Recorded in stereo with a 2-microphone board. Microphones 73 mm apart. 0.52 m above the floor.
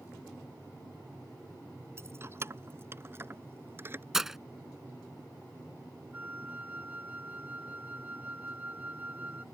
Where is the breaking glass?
5° right (ahead or behind).